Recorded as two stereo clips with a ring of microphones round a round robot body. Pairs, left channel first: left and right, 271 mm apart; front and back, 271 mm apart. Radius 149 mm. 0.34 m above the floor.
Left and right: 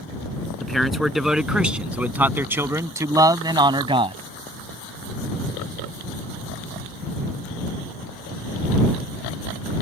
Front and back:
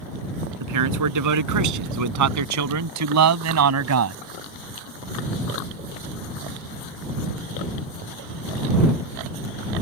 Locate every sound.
0.6 s a man speaking: straight behind; by 4.2 s 160° right